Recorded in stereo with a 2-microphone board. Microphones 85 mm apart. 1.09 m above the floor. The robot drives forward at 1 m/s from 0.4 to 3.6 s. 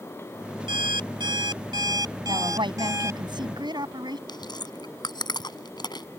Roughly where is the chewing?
Left.